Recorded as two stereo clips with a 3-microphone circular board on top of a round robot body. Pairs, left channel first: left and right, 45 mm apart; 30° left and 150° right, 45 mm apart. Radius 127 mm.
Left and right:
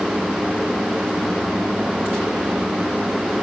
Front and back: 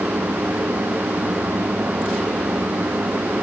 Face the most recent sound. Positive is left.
No sound to turn to.